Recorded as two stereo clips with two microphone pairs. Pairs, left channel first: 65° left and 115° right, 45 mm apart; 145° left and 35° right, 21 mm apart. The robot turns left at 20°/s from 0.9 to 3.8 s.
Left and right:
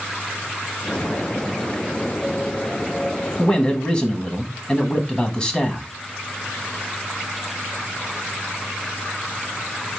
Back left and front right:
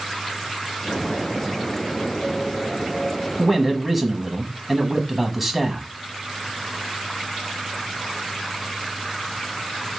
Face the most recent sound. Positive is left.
turn(degrees=60)